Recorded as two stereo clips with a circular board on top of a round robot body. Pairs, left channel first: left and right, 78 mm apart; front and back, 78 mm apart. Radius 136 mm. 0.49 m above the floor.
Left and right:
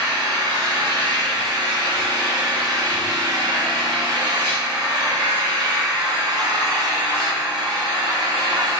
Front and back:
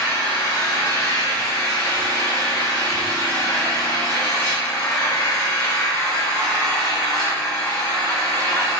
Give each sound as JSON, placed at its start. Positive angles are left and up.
{"t": 0.0, "sound": "an engine running", "azimuth_deg": -60, "distance_m": 1.0}